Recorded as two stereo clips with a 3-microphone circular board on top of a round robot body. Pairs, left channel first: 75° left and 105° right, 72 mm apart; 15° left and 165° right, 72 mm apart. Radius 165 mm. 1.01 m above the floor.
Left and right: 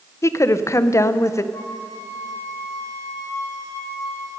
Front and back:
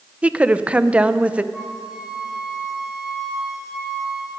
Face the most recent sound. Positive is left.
turn(degrees=115)